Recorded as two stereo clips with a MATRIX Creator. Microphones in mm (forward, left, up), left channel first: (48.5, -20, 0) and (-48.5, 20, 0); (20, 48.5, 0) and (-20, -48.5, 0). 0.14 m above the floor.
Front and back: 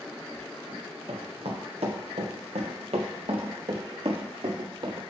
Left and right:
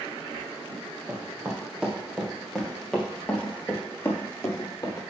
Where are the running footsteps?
Straight behind, 3 m; by 5.0 s 125° left, 3.5 m.